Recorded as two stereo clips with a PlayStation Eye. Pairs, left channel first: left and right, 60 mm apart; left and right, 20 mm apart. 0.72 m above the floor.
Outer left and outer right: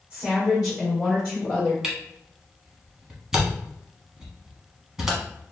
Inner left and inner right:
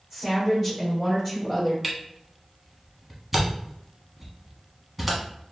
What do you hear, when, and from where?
0.1 s a woman speaking: 20° right (ahead or behind), 2.0 m; by 1.7 s 20° left (ahead or behind), 3.5 m
1.8 s a camera shutter: 10° right (ahead or behind), 1.1 m